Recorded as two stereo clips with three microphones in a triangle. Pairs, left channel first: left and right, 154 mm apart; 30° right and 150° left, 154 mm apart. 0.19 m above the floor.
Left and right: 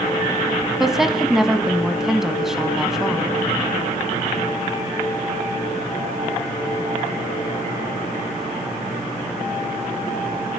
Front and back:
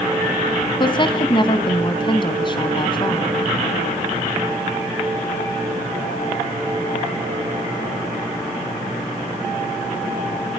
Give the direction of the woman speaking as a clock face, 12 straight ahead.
12 o'clock.